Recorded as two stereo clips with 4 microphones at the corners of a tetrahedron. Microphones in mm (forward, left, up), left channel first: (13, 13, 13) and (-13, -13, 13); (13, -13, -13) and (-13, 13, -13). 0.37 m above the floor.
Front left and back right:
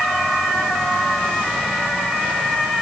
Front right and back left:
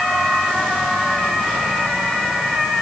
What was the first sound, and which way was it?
Only background noise.